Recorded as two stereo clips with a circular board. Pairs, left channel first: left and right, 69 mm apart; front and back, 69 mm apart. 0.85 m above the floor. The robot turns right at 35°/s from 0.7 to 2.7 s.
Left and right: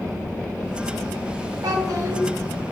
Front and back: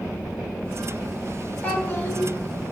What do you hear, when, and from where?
1.6 s a child speaking: 65° right, 2.5 m; by 2.2 s 45° right, 2.5 m